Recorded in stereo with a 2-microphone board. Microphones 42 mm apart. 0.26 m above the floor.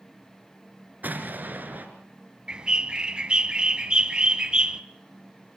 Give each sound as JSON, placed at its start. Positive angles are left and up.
{"t": 1.0, "sound": "an explosion", "side_deg": -50, "distance_m": 2.5}
{"t": 2.5, "sound": "a bird", "side_deg": -25, "distance_m": 0.8}